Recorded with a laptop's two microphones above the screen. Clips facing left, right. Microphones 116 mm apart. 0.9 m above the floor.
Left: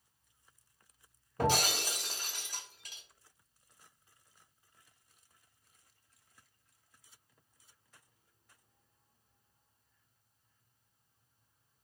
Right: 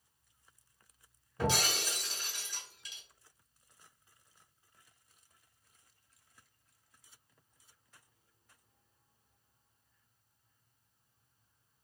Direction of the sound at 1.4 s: 55° left (ahead or behind).